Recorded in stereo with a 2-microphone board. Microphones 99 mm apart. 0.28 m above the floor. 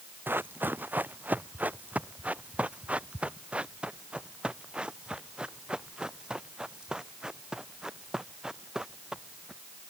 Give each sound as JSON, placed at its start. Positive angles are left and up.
{"t": 0.3, "sound": "running footsteps", "side_deg": -20}